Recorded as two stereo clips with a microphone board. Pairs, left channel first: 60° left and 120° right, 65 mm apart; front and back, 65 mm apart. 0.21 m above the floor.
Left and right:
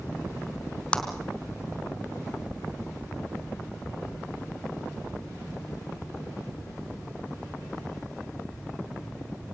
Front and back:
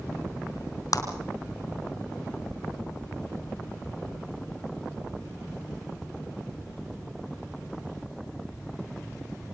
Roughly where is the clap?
Ahead.